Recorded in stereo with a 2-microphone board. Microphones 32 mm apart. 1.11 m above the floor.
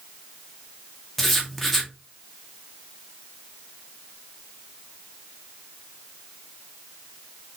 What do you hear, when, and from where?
1.2 s writing: 10° left (ahead or behind), 0.6 m